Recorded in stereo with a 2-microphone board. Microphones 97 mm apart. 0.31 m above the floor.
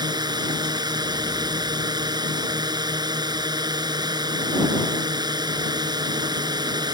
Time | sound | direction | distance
0.0 | a drone | 45° right (ahead or behind) | ?